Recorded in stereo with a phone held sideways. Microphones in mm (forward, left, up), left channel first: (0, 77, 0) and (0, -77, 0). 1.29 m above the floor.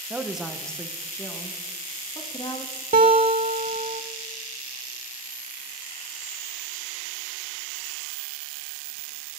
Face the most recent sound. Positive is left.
turn(degrees=-60)  # may be behind; listen again after turning